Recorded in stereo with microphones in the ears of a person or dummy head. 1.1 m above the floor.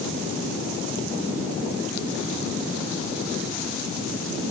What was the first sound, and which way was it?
Only background noise.